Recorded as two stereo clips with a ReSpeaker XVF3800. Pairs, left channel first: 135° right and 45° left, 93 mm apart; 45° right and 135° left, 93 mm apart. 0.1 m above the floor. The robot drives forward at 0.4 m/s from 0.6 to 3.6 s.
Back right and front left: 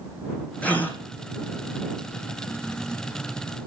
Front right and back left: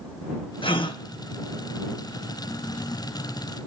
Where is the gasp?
60° right, 1.0 m; by 1.0 s 65° right, 1.0 m.